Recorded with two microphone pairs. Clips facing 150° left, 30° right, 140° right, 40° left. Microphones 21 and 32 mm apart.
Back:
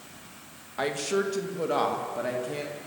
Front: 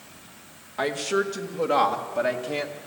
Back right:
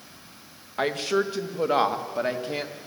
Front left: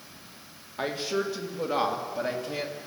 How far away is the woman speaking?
About 2 m.